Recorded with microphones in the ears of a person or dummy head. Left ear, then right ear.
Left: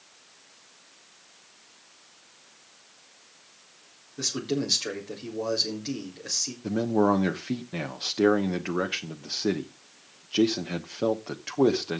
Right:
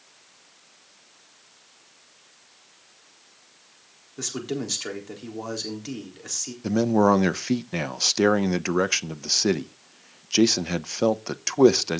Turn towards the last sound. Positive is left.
turn(degrees=-80)